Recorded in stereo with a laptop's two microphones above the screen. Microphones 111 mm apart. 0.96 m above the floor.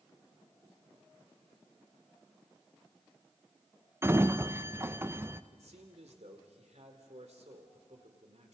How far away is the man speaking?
About 3 m.